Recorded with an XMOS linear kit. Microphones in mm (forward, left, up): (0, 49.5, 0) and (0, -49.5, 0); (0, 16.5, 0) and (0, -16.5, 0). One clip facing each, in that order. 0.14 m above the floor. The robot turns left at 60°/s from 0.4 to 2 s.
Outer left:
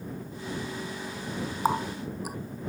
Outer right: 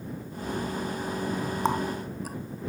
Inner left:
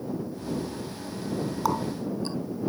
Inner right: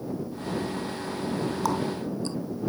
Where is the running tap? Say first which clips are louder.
Outer left 2 dB, even; 10° left (ahead or behind); by 2.4 s 15° left (ahead or behind).